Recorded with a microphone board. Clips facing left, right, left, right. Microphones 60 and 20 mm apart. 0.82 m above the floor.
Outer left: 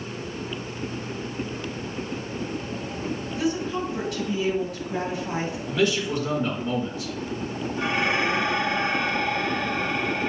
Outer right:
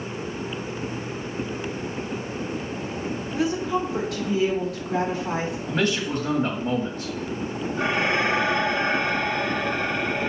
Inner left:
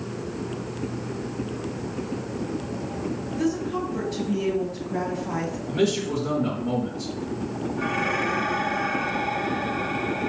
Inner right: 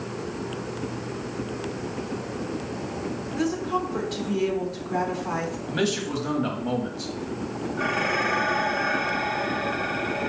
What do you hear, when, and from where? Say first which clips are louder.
3.4 s a woman speaking: outer right 3 dB, even; 70° right (ahead or behind), 1.8 m
5.7 s a man speaking: outer left 2 dB, inner left 3 dB; 45° right (ahead or behind), 1.3 m
7.8 s dishes clattering: outer right 1 dB, inner right 1 dB; 75° right (ahead or behind), 2.5 m